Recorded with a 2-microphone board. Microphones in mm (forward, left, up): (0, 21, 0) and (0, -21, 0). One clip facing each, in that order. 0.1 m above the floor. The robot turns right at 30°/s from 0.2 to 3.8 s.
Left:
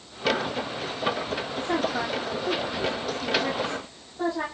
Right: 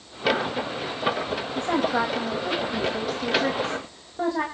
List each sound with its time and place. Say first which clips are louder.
1.6 s a woman speaking: right 4 dB; 110° right, 9 m; by 4.5 s 45° right, 9 m